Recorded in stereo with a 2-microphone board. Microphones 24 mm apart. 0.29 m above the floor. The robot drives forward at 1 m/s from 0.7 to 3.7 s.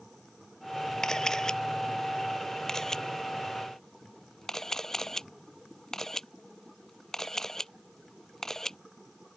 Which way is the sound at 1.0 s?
25° left (ahead or behind).